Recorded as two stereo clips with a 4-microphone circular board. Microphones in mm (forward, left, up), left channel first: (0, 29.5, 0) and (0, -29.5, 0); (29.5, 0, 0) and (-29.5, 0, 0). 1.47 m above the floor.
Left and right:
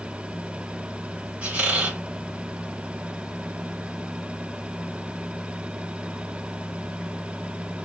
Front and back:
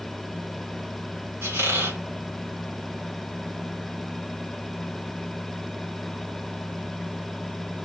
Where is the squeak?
155° right, 2.0 m.